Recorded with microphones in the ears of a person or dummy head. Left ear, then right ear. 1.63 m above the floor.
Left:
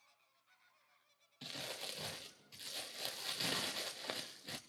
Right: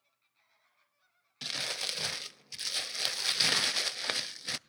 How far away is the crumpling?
About 0.6 m.